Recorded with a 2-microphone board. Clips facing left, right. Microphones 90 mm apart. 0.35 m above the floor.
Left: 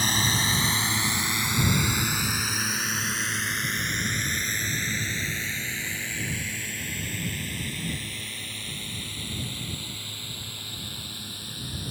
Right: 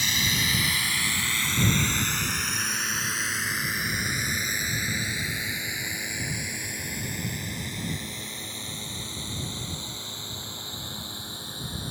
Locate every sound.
0.0 s a drone: 40° left (ahead or behind); by 11.9 s 25° right (ahead or behind)